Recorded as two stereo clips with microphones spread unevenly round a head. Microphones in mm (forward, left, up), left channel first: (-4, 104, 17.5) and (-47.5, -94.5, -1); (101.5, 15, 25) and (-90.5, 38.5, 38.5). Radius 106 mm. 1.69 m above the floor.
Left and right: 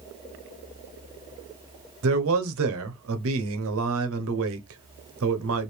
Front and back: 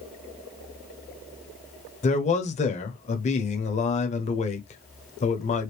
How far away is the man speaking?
About 0.9 m.